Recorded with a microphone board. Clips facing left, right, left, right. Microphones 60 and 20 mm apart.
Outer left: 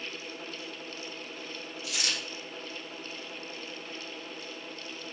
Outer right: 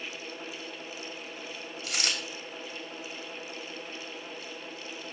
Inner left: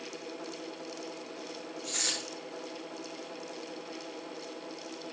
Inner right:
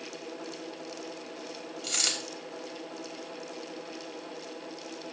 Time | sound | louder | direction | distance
1.8 | a dropped coin | outer right 2 dB, inner right 4 dB | 65° right (ahead or behind) | 3 m